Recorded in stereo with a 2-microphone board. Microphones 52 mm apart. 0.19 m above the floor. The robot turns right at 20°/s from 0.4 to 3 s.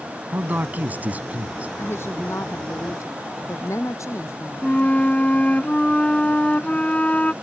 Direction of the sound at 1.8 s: 50° left (ahead or behind).